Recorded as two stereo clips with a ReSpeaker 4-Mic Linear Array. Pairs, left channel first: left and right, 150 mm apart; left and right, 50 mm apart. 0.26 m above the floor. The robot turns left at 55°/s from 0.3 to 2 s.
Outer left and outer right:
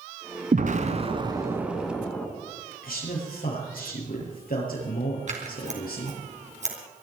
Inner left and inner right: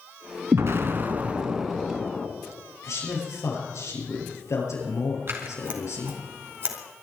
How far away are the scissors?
About 3 m.